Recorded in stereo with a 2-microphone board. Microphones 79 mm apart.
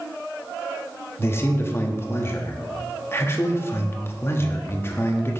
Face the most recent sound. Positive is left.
turn(degrees=30)  # may be behind; listen again after turning